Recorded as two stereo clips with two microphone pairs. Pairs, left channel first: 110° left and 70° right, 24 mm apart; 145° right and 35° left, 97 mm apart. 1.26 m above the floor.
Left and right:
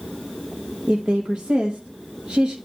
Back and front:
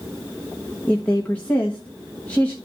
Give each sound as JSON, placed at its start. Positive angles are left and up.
{"t": 0.9, "sound": "a woman speaking", "azimuth_deg": -70, "distance_m": 1.2}